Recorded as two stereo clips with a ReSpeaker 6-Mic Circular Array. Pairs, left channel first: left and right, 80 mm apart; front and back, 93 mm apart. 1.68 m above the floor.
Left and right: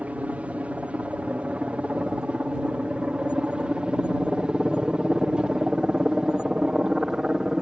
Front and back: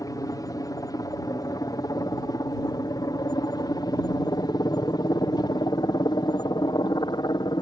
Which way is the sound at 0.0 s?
25° right.